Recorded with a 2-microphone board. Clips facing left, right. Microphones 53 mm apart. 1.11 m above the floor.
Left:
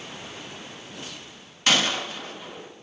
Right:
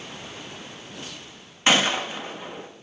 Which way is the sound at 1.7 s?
25° right (ahead or behind).